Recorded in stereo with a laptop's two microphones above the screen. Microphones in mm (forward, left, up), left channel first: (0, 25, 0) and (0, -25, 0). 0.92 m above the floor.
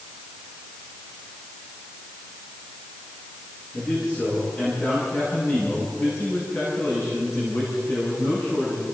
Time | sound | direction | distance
3.7 | a man speaking | 50° left (ahead or behind) | 9 m